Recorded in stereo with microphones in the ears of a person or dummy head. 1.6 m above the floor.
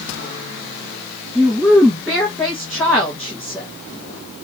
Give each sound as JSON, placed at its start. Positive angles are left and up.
{"t": 1.4, "sound": "a woman speaking", "side_deg": 0, "distance_m": 2.5}